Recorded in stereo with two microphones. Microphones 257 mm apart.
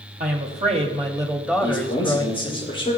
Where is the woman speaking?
35° right (ahead or behind), 1.2 m; by 2.6 s 30° left (ahead or behind), 1.0 m.